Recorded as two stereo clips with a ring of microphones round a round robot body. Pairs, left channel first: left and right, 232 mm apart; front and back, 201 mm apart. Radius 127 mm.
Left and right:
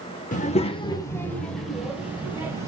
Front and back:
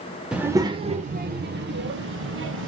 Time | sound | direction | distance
0.3 | a child speaking | 95° left | 0.8 m